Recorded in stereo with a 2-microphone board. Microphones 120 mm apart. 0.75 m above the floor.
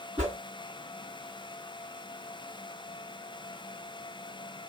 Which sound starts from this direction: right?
A whoosh, at 0.2 s.